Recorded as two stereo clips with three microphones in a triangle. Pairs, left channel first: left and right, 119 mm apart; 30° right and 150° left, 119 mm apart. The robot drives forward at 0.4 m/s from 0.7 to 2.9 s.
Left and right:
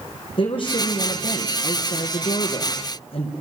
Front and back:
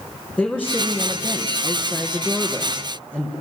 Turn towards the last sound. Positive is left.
turn(degrees=70)